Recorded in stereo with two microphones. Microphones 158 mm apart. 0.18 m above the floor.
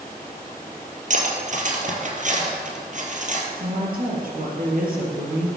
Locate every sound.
1.1 s cutlery clinking: 50° right (ahead or behind), 3 m
3.6 s a woman speaking: 65° right (ahead or behind), 4.5 m